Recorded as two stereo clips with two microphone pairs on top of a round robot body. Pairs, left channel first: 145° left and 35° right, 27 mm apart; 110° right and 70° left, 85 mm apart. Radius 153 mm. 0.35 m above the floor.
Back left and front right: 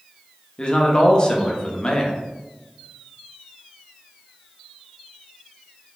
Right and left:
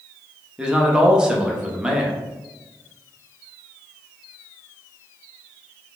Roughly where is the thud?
I don't hear a thud.